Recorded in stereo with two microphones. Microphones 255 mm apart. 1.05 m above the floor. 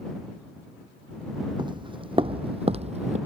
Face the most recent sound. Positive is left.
turn(degrees=-25)  # may be behind; listen again after turning